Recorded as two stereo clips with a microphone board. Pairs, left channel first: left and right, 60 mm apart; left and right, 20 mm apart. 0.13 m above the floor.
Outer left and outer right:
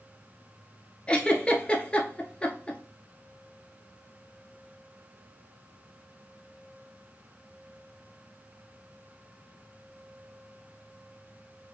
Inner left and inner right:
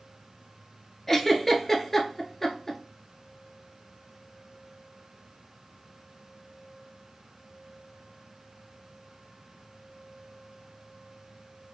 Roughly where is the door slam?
No door slam in this recording.